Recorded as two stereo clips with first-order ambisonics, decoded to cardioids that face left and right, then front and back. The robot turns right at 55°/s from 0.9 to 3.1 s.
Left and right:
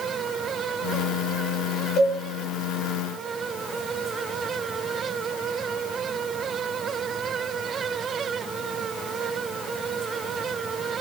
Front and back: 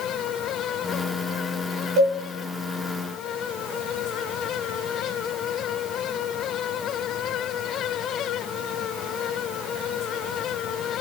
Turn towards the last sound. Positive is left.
turn(degrees=-150)